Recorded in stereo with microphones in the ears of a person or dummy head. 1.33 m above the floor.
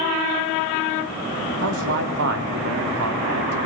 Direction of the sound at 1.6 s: 70° right (ahead or behind).